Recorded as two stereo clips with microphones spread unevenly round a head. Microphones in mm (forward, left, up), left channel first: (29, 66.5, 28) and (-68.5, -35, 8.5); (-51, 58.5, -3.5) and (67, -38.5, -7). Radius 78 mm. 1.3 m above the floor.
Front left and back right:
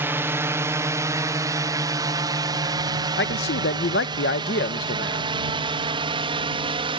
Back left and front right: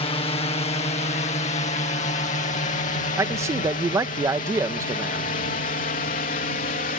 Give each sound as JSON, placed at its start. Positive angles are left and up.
{"t": 0.0, "sound": "a drone", "azimuth_deg": 170}
{"t": 3.2, "sound": "a man speaking", "azimuth_deg": 30}